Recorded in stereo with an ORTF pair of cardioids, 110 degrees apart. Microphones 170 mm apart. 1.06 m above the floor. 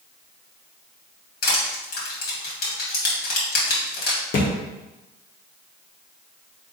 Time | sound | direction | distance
1.4 | crushing | 65° left | 2.5 m
4.3 | a thud | 60° left | 1.3 m